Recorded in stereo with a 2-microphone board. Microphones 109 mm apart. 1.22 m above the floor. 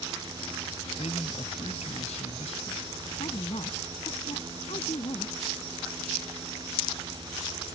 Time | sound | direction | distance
1.0 | a man speaking | 75° left (ahead or behind) | ?
3.2 | a woman speaking | 65° left (ahead or behind) | ?